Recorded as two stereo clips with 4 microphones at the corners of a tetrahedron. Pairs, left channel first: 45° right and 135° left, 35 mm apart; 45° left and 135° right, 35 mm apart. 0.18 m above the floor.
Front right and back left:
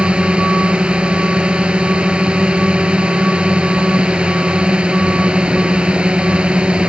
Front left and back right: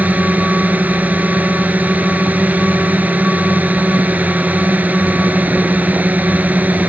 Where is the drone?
165° right.